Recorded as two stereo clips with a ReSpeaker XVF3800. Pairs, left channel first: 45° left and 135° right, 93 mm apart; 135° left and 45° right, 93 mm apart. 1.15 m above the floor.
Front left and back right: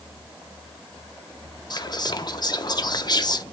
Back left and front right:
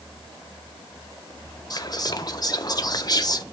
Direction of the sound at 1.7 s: 90° left.